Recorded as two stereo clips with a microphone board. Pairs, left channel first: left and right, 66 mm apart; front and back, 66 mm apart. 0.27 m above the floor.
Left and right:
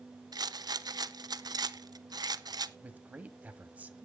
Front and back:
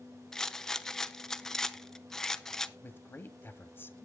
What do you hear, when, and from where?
0.3 s a rattle: 85° right, 0.6 m
2.8 s a man speaking: 35° right, 1.6 m